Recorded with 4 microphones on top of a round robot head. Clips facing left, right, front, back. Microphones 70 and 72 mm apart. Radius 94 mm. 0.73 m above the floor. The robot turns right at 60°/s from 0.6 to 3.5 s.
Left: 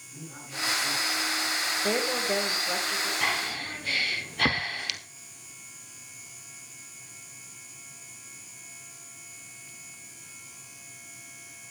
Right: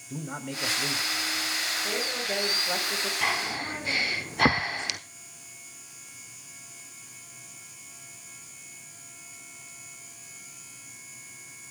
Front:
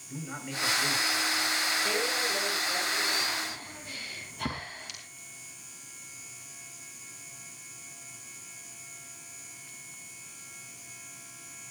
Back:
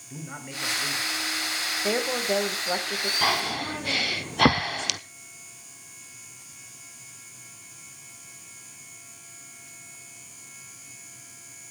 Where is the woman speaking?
140° left, 4 m; by 3.1 s 145° right, 4 m.